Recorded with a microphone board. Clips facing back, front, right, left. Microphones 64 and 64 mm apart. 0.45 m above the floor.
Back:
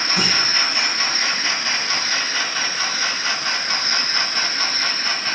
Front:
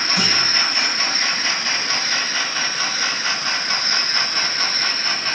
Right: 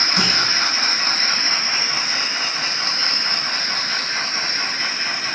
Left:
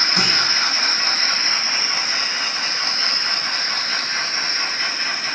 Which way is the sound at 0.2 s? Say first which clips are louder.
Even, right 1 dB; 120° left.